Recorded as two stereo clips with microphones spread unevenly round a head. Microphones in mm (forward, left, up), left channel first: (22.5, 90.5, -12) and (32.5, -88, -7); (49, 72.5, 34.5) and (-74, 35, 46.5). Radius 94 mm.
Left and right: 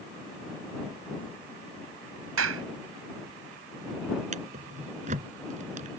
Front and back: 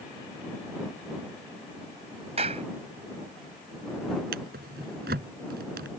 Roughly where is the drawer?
Behind right.